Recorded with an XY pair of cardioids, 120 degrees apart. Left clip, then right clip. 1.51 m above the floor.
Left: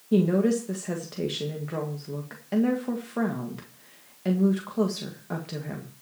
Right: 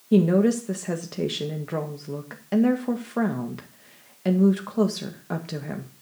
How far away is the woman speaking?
About 1.7 m.